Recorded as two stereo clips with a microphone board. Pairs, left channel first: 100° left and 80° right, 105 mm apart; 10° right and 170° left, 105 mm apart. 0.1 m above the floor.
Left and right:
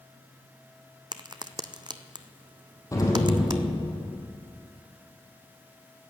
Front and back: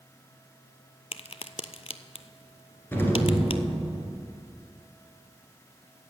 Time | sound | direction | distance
1.1 | a crack | 35° right | 0.5 m
2.9 | an explosion | 55° left | 2.5 m